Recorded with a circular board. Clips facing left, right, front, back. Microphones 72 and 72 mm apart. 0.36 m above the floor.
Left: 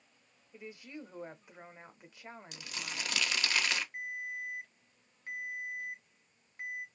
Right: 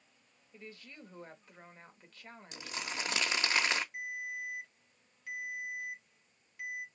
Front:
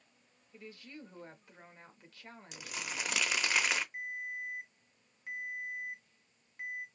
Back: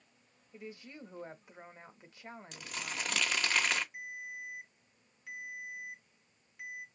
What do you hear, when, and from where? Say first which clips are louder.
0.5 s a woman speaking: left 5 dB, back 2 dB; 145° left, 0.8 m
2.5 s crumpling: right 4 dB, even; 75° right, 0.7 m
3.9 s a ringtone: even, front 4 dB; 35° left, 1.6 m